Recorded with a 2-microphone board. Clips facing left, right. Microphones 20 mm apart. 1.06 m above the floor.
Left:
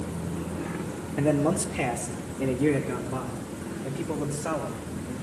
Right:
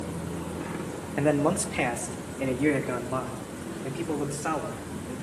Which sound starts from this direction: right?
A man speaking, at 1.2 s.